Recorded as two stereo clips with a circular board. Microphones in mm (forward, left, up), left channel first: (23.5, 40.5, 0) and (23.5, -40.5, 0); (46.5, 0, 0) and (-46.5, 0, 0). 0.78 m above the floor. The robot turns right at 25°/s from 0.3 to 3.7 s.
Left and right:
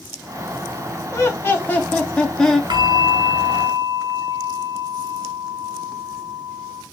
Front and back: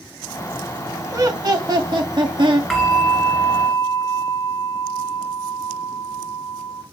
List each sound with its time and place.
1.1 s laughter: 140° left, 1.4 m; by 2.6 s 175° left, 1.4 m
2.7 s a bell: 90° right, 1.5 m; by 6.8 s 65° right, 1.5 m